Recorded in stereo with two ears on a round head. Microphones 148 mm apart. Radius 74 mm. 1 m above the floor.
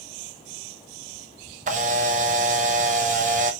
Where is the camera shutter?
45° right (ahead or behind), 0.6 m.